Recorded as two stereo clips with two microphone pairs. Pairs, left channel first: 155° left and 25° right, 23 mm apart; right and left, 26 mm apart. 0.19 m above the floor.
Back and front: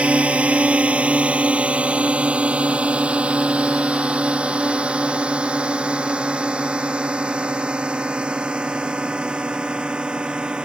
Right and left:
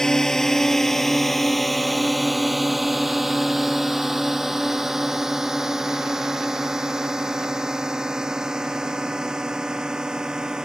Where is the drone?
25° right; by 10.7 s 25° left.